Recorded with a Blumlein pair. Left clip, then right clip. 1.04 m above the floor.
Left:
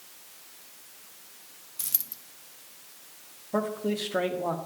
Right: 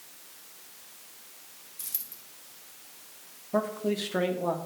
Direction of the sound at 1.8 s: 65° left.